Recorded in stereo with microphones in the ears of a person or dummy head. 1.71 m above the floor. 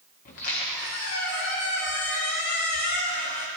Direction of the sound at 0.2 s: 40° left (ahead or behind).